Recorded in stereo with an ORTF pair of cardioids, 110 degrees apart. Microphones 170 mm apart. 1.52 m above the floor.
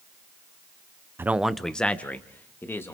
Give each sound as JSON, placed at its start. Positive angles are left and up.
{"t": 1.2, "sound": "a man speaking", "azimuth_deg": -15, "distance_m": 0.6}